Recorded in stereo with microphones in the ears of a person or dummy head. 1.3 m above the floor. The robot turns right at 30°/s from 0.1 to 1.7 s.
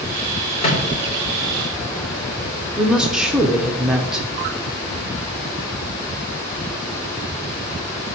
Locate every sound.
0.6 s a microwave: 35° left (ahead or behind), 3 m; by 3.7 s centre (ahead or behind), 3 m
2.8 s a woman speaking: 10° right (ahead or behind), 1.0 m